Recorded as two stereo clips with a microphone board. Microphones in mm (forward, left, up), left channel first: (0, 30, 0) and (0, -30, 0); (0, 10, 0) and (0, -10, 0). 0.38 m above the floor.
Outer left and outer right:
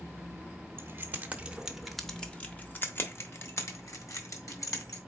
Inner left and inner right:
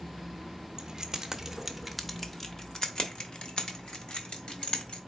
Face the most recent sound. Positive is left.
turn(degrees=65)  # may be behind; listen again after turning